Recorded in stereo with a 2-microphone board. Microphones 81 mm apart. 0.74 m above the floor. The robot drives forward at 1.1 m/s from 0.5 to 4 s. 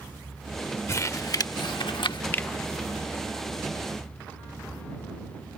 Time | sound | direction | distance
0.9 | crumpling | 35° left (ahead or behind) | ?
2.3 | a finger snap | 25° left (ahead or behind) | ?